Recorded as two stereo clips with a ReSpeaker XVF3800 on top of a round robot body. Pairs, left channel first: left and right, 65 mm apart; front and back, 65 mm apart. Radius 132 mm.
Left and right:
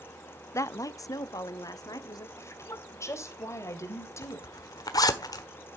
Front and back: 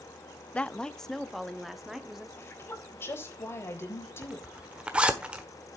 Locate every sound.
0.5 s a woman speaking: 65° left, 0.7 m; by 2.3 s 95° left, 1.9 m
2.4 s a woman speaking: 50° left, 3.5 m
4.2 s a zipper: 105° left, 1.3 m